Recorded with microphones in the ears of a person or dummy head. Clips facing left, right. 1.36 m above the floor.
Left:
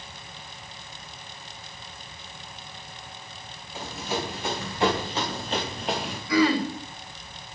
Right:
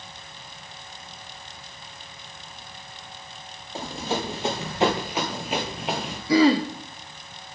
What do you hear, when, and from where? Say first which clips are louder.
3.8 s running footsteps: right 3 dB; 30° right (ahead or behind), 2.5 m; by 6.2 s centre (ahead or behind), 1.9 m
6.3 s throat clearing: right 4 dB; 30° right (ahead or behind), 0.7 m